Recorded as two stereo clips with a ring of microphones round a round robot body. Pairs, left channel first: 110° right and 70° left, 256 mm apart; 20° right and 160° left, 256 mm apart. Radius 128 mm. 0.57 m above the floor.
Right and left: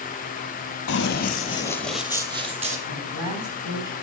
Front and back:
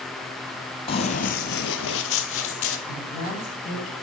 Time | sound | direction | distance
0.9 | running footsteps | 85° right | 0.9 m
2.9 | a woman speaking | 45° left | 3 m